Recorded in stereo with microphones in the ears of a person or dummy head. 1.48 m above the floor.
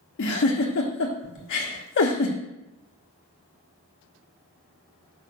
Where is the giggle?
60° left (ahead or behind), 1.0 m.